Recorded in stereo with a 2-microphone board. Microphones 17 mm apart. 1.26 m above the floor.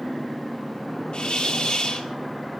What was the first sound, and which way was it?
A hiss, 70° left (ahead or behind).